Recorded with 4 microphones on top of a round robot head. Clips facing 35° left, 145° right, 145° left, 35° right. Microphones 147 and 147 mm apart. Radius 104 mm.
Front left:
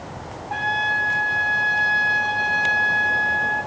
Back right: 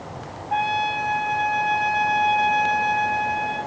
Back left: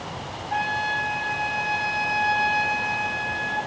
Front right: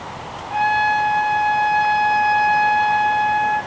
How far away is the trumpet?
About 1.3 m.